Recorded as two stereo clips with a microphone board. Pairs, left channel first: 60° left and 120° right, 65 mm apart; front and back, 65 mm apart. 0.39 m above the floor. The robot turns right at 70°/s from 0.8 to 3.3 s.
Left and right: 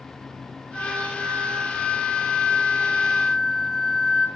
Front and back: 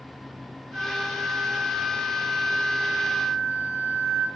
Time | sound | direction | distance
0.7 | a flute | 150° left | 3.5 m